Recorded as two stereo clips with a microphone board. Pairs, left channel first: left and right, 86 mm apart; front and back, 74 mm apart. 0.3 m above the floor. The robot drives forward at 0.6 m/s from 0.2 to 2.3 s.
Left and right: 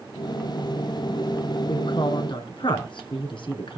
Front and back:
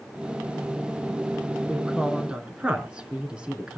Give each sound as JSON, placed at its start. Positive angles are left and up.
{"t": 1.7, "sound": "a woman speaking", "azimuth_deg": 95, "distance_m": 3.5}